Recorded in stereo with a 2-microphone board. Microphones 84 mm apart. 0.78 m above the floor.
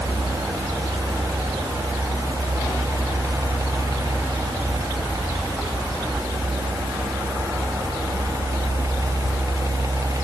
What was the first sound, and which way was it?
Only background noise.